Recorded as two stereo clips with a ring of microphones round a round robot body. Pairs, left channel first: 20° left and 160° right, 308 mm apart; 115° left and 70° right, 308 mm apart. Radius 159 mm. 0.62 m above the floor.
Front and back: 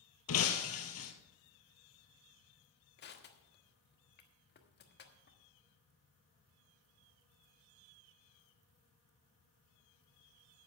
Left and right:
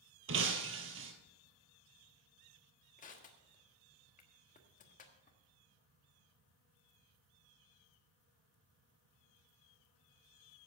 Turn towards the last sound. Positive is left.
turn(degrees=60)